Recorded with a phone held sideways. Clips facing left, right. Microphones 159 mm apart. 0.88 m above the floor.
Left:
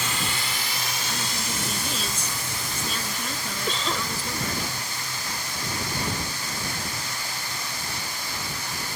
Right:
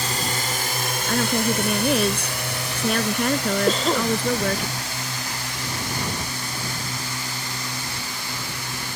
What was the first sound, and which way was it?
A drone, 40° right (ahead or behind).